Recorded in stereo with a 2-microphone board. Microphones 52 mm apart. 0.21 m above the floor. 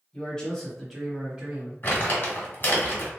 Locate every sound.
0.1 s a man speaking: 20° left (ahead or behind), 1.1 m; by 1.7 s 25° right (ahead or behind), 1.1 m
1.8 s crumpling: 40° left (ahead or behind), 1.7 m